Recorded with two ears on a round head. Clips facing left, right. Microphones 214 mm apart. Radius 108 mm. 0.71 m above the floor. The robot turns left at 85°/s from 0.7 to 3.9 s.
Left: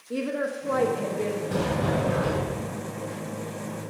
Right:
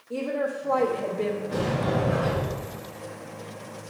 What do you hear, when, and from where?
0.1 s a woman speaking: 35° left, 1.3 m; by 1.4 s 25° right, 1.3 m
1.5 s a sliding door: 65° left, 3.5 m; by 2.7 s 40° right, 3.5 m